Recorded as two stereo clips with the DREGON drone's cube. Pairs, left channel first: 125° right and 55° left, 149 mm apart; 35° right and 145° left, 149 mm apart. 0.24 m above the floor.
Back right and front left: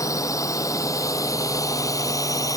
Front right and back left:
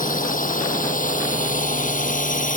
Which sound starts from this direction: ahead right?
A drone, at 0.0 s.